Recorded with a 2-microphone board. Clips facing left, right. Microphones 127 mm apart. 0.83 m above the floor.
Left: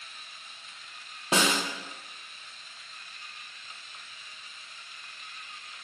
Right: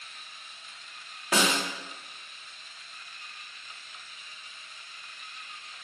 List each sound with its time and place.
1.3 s a snare drum: 25° left (ahead or behind), 0.6 m